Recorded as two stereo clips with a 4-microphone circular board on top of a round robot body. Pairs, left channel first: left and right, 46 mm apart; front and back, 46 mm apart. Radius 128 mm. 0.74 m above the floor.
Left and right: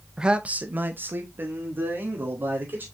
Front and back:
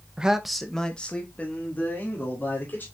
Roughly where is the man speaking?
Behind right.